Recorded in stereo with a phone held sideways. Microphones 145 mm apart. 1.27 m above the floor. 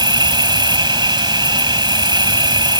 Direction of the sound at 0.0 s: 30° right (ahead or behind).